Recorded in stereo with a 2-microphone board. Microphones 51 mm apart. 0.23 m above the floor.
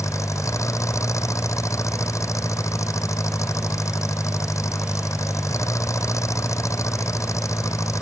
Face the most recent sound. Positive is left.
turn(degrees=80)